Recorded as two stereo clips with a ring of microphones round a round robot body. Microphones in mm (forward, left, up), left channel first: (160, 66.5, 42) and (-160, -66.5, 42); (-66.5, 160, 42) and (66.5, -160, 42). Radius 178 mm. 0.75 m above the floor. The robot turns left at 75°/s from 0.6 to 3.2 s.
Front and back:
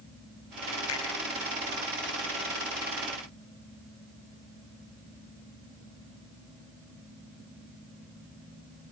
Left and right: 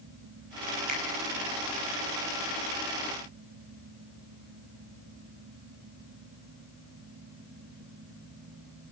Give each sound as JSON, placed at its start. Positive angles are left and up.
{"t": 0.9, "sound": "a finger snap", "azimuth_deg": -25, "distance_m": 5.5}